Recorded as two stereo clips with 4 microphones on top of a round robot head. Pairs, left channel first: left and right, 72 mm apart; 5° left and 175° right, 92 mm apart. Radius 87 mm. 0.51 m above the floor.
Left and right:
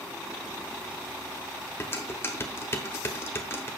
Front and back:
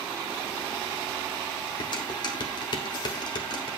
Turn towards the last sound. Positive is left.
turn(degrees=35)